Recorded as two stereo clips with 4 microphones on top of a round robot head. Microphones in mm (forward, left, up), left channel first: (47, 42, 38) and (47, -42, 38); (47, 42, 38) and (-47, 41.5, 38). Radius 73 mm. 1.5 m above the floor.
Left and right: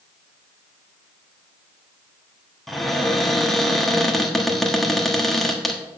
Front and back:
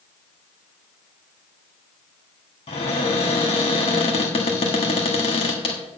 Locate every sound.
2.7 s a cupboard door: straight ahead, 1.3 m